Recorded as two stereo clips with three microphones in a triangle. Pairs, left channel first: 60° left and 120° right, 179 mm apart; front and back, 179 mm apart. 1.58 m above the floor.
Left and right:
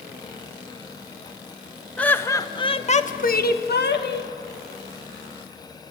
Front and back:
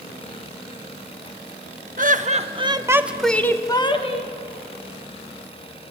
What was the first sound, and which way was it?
Laughter, 140° left.